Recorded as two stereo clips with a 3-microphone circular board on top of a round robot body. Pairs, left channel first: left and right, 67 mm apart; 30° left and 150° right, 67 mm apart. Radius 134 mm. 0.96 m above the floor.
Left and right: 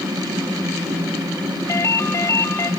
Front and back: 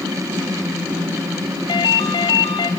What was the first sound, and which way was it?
A ringtone, 40° left.